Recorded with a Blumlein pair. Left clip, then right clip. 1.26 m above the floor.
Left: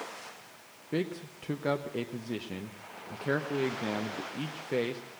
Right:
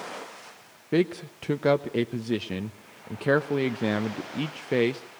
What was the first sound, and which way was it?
A man speaking, 65° right.